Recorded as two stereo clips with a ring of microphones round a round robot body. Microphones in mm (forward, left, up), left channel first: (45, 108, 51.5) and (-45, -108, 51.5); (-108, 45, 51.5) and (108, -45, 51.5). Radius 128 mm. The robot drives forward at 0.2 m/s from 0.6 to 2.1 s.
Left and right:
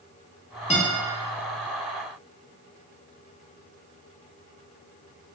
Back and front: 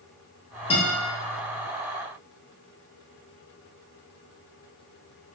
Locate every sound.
0.7 s a guitar: 110° left, 1.0 m; by 0.9 s 115° left, 1.0 m